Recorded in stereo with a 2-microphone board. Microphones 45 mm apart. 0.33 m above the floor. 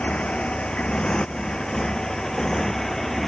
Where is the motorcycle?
25° left (ahead or behind); by 3.3 s 5° left (ahead or behind).